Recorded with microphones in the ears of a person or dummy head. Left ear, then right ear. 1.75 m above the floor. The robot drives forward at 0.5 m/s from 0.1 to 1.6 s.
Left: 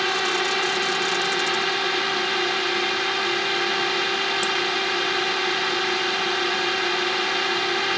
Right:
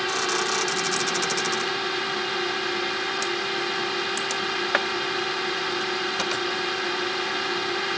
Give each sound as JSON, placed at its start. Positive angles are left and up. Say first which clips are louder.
{"t": 0.0, "sound": "a drone", "louder": "left 3 dB", "side_deg": 20}